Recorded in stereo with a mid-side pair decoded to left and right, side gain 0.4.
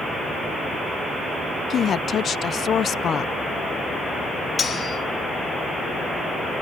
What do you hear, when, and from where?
1.7 s a woman speaking: 60° left, 0.6 m
4.6 s cutlery clinking: 40° left, 2.5 m